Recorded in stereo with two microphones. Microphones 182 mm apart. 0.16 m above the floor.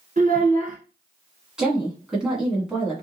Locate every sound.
0.2 s a child speaking: 50° right (ahead or behind), 0.9 m
1.6 s a woman speaking: 5° right (ahead or behind), 1.5 m